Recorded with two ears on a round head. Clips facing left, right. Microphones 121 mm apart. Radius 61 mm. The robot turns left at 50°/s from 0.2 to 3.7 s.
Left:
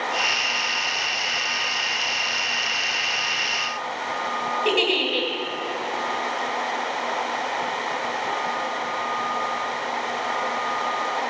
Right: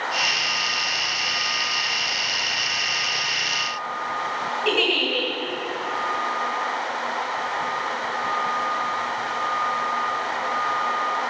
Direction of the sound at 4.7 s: 30° left (ahead or behind).